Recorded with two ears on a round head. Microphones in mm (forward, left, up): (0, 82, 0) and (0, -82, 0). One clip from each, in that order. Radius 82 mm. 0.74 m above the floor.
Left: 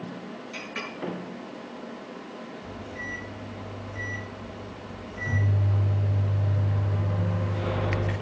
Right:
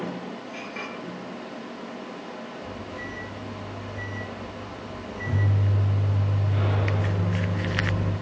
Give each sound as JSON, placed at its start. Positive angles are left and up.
{"t": 0.5, "sound": "a clink", "side_deg": 80, "distance_m": 7.5}
{"t": 2.6, "sound": "a microwave", "side_deg": 35, "distance_m": 7.0}